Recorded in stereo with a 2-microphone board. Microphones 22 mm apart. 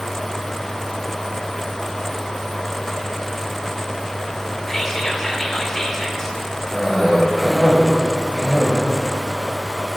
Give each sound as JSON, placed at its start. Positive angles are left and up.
{"t": 4.7, "sound": "whispering", "side_deg": 15, "distance_m": 0.8}
{"t": 6.7, "sound": "a cough", "side_deg": 15, "distance_m": 1.9}